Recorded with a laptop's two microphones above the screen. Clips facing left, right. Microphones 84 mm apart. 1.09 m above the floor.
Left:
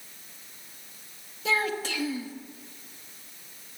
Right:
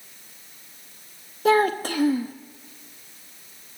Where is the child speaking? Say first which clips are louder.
Right 9 dB; 50° right (ahead or behind), 0.9 m.